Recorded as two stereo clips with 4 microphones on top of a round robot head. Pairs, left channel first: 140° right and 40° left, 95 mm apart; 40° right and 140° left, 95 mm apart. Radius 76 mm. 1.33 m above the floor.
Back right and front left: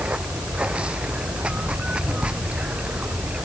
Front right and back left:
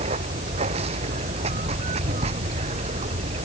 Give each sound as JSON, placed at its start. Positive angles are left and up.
{"t": 0.0, "sound": "running water", "azimuth_deg": 120}